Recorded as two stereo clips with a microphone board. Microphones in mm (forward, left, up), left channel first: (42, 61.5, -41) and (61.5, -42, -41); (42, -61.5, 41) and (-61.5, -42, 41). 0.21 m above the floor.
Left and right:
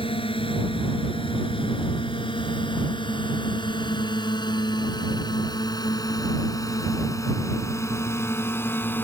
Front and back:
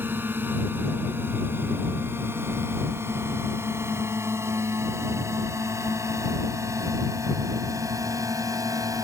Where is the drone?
100° left; by 9.0 s 155° left.